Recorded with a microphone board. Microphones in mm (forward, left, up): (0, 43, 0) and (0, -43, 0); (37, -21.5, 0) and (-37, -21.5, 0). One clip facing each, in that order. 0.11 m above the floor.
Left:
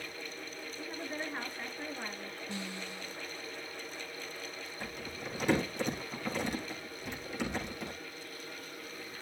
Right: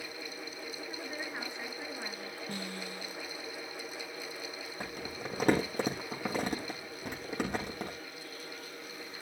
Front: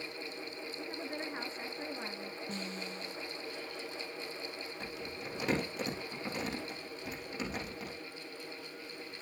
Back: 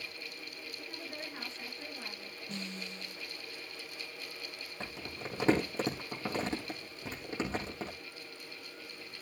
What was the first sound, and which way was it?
A woman speaking, 5° left.